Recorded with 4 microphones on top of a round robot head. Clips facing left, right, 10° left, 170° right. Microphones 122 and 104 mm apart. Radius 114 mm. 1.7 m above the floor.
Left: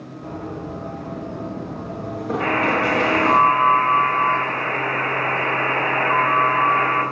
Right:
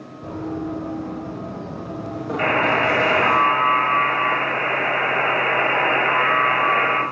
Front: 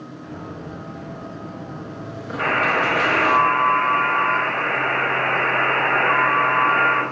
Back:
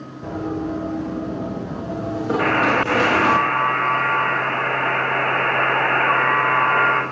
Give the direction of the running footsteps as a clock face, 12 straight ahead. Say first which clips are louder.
Right 4 dB, back 12 dB; 5 o'clock.